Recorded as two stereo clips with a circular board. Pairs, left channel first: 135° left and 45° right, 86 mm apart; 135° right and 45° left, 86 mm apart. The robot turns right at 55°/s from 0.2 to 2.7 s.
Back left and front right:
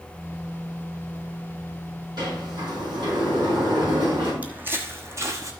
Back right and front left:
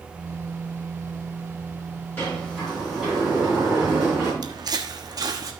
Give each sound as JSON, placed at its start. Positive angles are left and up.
{"t": 2.2, "sound": "a sliding door", "azimuth_deg": -70, "distance_m": 5.5}
{"t": 4.4, "sound": "footsteps", "azimuth_deg": 25, "distance_m": 0.9}